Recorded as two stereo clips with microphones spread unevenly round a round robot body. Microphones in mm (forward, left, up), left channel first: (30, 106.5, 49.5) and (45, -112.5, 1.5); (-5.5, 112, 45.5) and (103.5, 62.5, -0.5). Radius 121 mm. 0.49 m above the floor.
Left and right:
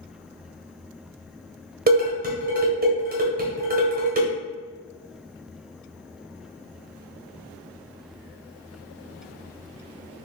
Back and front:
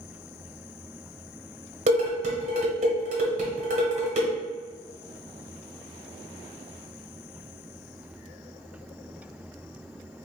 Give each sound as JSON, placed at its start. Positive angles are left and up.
{"t": 1.9, "sound": "dishes clattering", "azimuth_deg": -45, "distance_m": 1.3}